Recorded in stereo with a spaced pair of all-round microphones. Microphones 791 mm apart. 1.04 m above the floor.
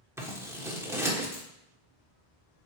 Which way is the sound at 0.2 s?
5° right (ahead or behind).